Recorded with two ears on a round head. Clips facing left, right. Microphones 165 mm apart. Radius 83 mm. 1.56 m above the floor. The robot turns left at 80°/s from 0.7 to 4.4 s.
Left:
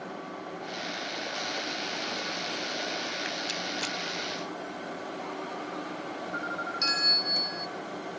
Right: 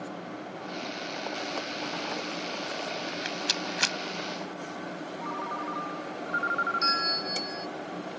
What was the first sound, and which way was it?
A rattle, 35° right (ahead or behind).